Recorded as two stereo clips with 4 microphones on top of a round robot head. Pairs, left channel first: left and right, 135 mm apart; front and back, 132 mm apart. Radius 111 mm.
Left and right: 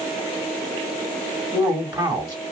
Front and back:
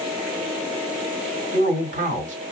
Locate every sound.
1.5 s a man speaking: 165° right, 1.9 m